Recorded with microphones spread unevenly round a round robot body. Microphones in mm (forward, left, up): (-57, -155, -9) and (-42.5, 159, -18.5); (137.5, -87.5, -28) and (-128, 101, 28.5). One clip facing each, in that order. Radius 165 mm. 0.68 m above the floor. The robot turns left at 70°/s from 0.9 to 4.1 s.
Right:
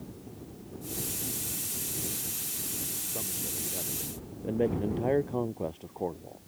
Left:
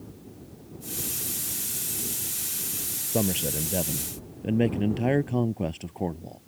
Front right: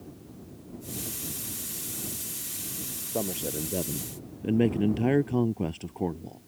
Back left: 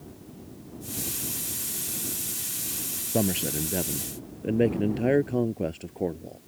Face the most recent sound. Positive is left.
turn(degrees=40)